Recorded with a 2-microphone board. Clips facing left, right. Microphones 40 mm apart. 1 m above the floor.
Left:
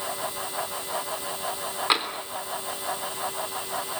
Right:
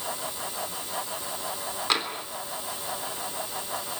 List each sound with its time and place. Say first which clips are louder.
1.9 s tapping: left 2 dB; 15° left (ahead or behind), 3.5 m